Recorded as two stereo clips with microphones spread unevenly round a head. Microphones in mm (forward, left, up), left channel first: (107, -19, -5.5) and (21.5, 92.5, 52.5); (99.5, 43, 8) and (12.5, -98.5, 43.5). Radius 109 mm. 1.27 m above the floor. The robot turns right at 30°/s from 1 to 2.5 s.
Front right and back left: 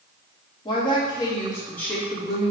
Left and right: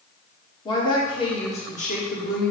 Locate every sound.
0.7 s a woman speaking: straight ahead, 1.8 m; by 2.5 s 45° left, 1.8 m